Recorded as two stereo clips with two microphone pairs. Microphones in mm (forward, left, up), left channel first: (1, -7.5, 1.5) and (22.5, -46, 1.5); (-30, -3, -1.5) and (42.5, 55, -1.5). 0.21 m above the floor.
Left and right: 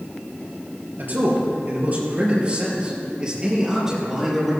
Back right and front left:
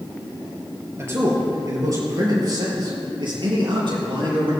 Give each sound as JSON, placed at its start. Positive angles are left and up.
{"t": 1.0, "sound": "a man speaking", "azimuth_deg": -20, "distance_m": 4.5}